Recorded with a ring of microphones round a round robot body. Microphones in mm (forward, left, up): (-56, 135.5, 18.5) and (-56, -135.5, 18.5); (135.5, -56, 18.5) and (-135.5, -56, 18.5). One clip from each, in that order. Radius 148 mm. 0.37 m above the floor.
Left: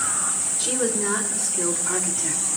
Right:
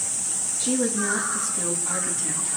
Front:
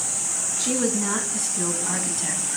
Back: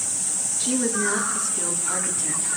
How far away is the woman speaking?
About 4.5 m.